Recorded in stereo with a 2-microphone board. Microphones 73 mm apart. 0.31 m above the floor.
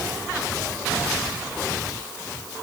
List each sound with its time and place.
Only background noise.